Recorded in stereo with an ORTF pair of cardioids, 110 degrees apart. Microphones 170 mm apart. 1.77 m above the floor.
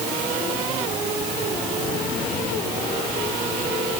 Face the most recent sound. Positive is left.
No sound to turn to.